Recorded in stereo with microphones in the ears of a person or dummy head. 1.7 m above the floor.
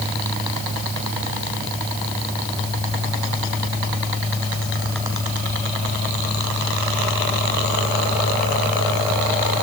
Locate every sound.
Only background noise.